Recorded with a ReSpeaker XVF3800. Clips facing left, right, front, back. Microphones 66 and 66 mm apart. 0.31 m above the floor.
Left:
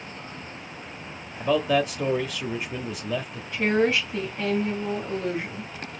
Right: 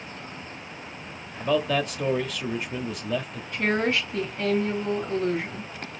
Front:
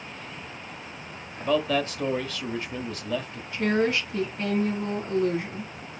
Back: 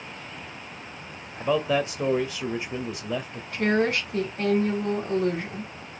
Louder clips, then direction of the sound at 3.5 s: Left 2 dB, back 1 dB; 175° left.